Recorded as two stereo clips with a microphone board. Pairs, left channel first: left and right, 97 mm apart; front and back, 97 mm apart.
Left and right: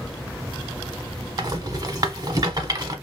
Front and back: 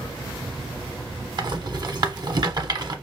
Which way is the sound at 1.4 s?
140° right.